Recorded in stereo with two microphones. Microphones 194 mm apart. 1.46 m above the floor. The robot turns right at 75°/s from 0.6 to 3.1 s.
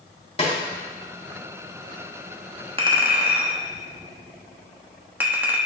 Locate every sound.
0.4 s a snare drum: 30° left (ahead or behind), 1.9 m
2.8 s a clink: 30° right (ahead or behind), 1.2 m; by 5.6 s 10° right (ahead or behind), 1.2 m